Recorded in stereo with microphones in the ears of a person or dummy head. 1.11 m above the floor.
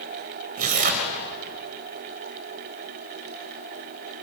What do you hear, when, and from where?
0.6 s tearing paper: 50° right (ahead or behind), 3.5 m